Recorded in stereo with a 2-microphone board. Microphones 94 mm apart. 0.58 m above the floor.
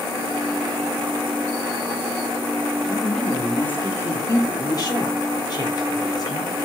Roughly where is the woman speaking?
Centre.